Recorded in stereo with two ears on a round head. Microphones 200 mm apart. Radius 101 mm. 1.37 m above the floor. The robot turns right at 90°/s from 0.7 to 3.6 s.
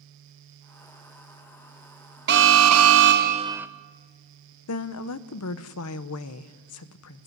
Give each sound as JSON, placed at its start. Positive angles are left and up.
{"t": 2.3, "sound": "an alarm", "azimuth_deg": -130, "distance_m": 0.9}
{"t": 4.7, "sound": "a woman speaking", "side_deg": 75, "distance_m": 0.9}